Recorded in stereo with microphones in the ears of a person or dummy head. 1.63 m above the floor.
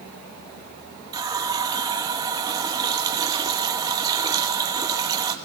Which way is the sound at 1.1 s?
20° right (ahead or behind).